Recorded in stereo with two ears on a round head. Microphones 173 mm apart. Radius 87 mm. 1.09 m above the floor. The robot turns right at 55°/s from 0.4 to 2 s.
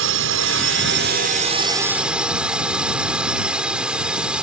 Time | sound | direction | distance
0.0 | a drone | 95° right | ?